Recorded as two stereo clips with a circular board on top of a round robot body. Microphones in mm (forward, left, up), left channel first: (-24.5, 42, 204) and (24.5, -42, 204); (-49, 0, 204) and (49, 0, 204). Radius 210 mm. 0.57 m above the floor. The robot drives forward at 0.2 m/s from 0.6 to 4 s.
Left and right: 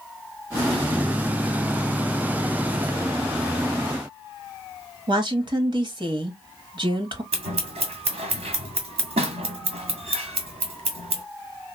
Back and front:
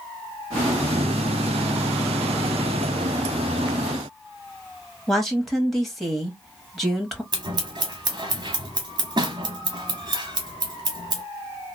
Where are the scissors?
50° right, 0.6 m.